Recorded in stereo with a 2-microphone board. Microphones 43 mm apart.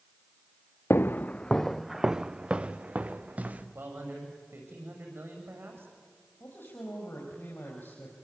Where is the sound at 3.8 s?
65° right (ahead or behind), 6.5 m.